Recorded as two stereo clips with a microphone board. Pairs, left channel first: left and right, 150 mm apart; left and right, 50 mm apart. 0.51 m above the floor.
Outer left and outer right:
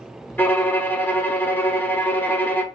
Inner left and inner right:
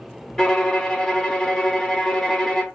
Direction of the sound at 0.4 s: 15° left (ahead or behind).